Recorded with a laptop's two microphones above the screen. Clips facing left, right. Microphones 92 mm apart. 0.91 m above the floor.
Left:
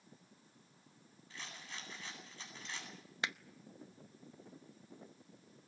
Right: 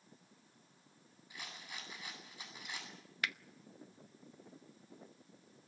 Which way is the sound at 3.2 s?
25° left (ahead or behind).